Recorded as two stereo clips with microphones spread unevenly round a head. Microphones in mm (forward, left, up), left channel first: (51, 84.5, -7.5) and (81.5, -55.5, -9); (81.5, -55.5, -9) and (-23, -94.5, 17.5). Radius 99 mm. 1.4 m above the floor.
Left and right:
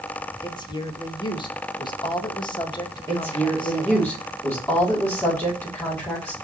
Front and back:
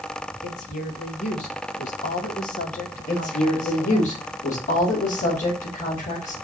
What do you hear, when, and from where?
0.4 s a woman speaking: 45° left, 1.9 m
3.1 s a woman speaking: 30° left, 3 m